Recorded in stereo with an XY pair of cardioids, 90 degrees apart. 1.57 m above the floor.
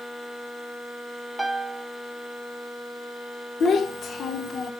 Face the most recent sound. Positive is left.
turn(degrees=55)